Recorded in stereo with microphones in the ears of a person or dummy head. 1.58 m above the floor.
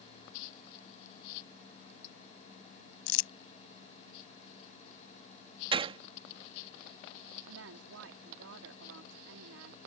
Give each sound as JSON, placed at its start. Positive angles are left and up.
{"t": 3.1, "sound": "crumpling", "side_deg": 70}
{"t": 5.7, "sound": "a gunshot", "side_deg": -30}
{"t": 7.5, "sound": "a woman speaking", "side_deg": -90}